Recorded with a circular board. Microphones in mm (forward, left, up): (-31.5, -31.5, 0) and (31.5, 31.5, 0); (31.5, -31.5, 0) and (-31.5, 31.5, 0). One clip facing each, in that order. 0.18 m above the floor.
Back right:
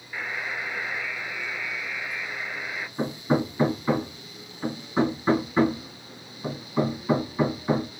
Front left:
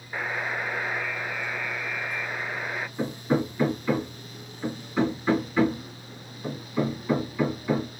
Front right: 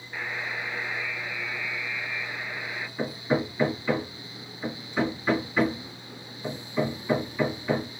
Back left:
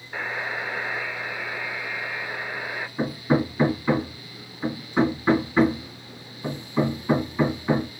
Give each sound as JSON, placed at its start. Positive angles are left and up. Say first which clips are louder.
{"t": 0.1, "sound": "a buzzer", "louder": "front left 3 dB, back left 4 dB", "azimuth_deg": 95, "distance_m": 0.8}
{"t": 3.0, "sound": "hammering", "louder": "back right 1 dB, back left 4 dB", "azimuth_deg": 180, "distance_m": 1.7}